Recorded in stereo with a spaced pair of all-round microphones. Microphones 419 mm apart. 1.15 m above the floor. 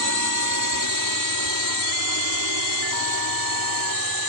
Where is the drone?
45° left (ahead or behind); by 4.3 s 55° left (ahead or behind).